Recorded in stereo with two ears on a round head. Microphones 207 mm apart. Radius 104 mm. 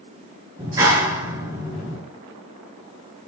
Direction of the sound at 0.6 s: 15° right (ahead or behind).